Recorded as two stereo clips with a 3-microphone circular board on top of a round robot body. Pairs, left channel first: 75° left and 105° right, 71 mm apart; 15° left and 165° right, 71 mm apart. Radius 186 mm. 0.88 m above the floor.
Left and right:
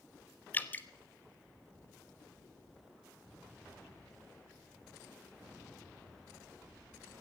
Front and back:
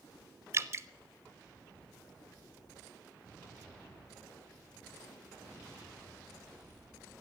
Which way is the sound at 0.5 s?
140° left.